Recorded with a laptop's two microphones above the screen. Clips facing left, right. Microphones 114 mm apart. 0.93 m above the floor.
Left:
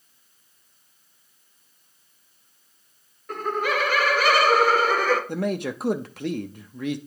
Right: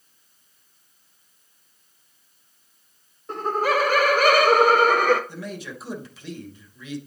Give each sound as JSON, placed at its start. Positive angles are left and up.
{"t": 3.3, "sound": "laughter", "side_deg": -25, "distance_m": 0.9}
{"t": 5.3, "sound": "a man speaking", "side_deg": 60, "distance_m": 0.5}